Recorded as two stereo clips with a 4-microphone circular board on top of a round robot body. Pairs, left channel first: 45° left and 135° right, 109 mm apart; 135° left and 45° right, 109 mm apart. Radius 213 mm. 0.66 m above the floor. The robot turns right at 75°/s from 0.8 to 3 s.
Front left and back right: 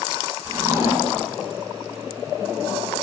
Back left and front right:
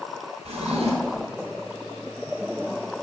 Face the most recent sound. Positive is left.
turn(degrees=90)